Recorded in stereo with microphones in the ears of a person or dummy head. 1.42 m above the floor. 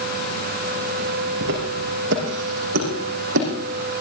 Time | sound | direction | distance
1.4 | footsteps | 60° right (ahead or behind) | 6 m